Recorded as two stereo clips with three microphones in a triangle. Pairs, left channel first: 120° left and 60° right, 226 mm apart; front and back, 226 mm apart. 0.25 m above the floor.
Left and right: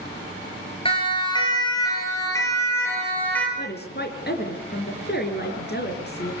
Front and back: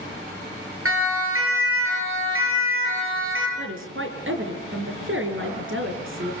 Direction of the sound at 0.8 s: 175° right.